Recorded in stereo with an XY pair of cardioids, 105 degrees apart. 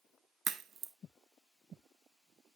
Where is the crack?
65° right, 1.0 m.